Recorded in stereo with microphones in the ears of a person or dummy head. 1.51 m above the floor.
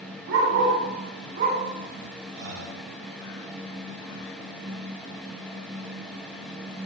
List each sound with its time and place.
0.3 s a dog barking: 65° right (ahead or behind), 2.5 m; by 1.6 s 45° right (ahead or behind), 2 m
2.4 s breathing: 65° right (ahead or behind), 1.2 m